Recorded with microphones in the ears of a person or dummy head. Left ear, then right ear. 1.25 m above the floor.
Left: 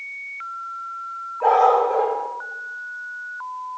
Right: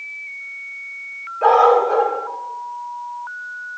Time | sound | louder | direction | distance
1.4 | a dog barking | right 3 dB | 50° right (ahead or behind) | 1.5 m